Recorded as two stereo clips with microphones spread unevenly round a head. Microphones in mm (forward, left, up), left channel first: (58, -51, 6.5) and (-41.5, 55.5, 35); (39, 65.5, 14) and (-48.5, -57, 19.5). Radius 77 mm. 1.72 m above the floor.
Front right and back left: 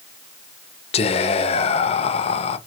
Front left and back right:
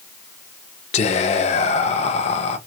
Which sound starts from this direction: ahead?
Whispering, at 0.9 s.